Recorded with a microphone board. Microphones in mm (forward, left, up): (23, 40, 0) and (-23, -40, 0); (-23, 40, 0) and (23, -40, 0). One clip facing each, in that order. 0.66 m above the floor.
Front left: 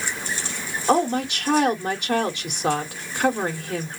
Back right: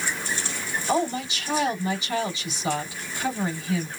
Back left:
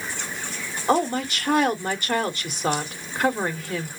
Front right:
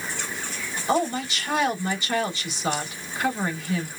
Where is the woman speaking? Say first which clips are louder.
Front left 5 dB, back left 2 dB; 85° left, 2.5 m.